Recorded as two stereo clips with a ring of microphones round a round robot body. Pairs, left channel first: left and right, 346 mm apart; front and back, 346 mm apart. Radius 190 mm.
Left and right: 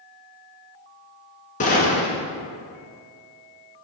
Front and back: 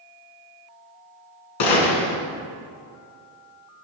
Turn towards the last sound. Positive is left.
turn(degrees=20)